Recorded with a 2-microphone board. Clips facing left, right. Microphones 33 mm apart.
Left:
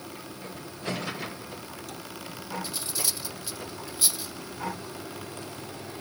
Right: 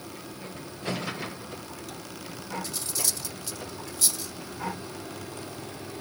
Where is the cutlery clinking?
20° left (ahead or behind).